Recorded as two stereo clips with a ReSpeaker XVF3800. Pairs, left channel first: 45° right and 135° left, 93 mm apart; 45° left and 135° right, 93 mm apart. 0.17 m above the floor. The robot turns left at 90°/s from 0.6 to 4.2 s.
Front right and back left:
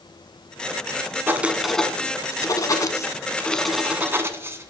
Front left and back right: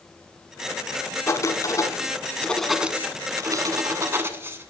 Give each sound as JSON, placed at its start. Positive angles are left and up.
{"t": 1.3, "sound": "writing", "azimuth_deg": 85, "distance_m": 1.0}